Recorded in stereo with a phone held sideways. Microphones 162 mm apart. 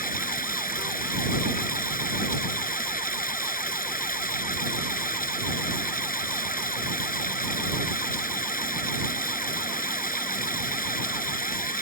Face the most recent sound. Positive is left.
turn(degrees=60)  # may be behind; listen again after turning